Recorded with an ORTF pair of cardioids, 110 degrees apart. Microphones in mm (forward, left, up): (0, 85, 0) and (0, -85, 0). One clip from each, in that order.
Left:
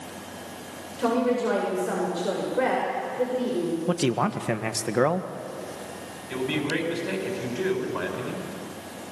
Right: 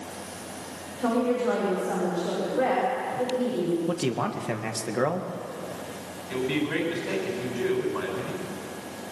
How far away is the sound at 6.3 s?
About 8 m.